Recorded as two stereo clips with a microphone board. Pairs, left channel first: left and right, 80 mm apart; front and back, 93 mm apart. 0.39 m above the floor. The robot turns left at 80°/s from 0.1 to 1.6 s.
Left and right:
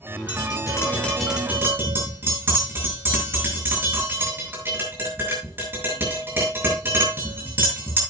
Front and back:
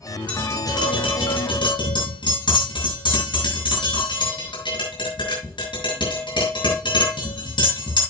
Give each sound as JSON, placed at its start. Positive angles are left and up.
{"t": 0.3, "sound": "tapping", "azimuth_deg": 75, "distance_m": 7.0}